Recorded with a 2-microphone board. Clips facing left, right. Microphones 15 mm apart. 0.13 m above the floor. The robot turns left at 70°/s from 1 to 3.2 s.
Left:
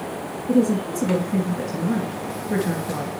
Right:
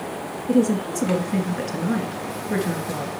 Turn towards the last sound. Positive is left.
turn(degrees=150)